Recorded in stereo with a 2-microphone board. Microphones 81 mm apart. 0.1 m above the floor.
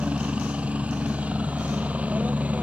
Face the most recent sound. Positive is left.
turn(degrees=-20)  # may be behind; listen again after turning